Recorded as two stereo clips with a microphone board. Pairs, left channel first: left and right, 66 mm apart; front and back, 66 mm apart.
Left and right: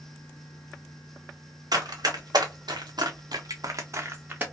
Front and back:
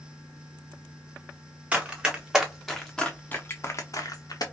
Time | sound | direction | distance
1.7 | running footsteps | 110° right | 1.3 m